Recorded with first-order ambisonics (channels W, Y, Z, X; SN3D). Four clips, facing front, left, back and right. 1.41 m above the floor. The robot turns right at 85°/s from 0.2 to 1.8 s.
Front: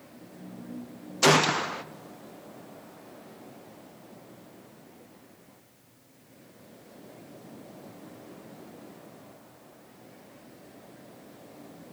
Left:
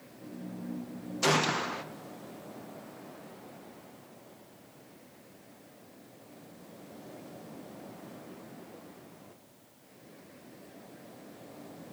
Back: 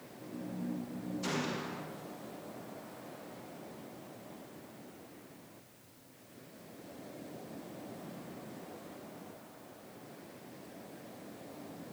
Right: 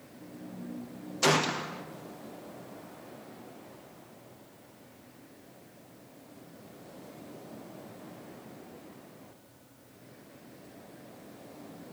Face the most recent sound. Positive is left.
turn(degrees=35)